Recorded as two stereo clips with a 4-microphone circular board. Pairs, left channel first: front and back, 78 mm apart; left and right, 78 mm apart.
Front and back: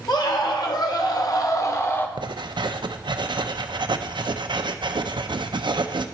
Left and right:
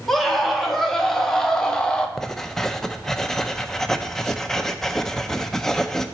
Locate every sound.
0.1 s a scream: straight ahead, 1.9 m; by 2.1 s 25° left, 0.9 m
2.2 s writing: 170° left, 0.5 m